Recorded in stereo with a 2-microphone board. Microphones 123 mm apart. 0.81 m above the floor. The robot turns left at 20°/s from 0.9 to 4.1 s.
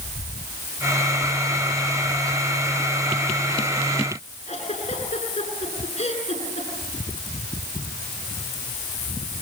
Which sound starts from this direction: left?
A giggle, at 4.5 s.